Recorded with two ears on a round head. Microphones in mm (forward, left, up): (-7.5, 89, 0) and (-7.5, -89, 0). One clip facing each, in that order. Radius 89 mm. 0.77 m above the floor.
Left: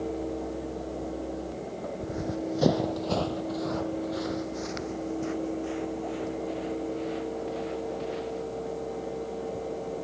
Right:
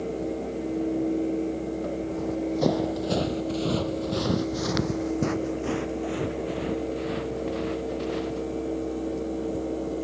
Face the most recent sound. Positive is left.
turn(degrees=-65)  # may be behind; listen again after turning